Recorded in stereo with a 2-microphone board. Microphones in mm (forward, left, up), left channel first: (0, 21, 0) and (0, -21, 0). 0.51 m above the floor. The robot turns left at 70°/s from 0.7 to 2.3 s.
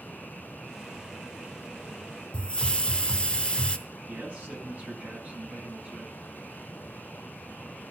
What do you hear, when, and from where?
2.3 s a hiss: 25° left (ahead or behind), 0.8 m
4.1 s a man speaking: 35° right (ahead or behind), 6 m